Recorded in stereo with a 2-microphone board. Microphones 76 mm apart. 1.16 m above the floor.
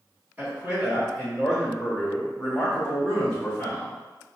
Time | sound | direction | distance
0.4 | a man speaking | 20° right (ahead or behind) | 1.9 m